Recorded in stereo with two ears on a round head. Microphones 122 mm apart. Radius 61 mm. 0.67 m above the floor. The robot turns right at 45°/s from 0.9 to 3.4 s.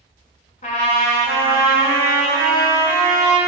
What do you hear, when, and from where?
0.6 s a trumpet: 115° left, 1.1 m; by 3.4 s 130° right, 1.1 m